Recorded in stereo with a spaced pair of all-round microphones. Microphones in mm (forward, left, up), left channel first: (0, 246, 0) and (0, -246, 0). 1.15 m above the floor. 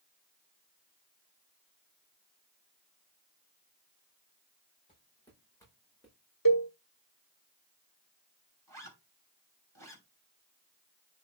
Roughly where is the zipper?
Right.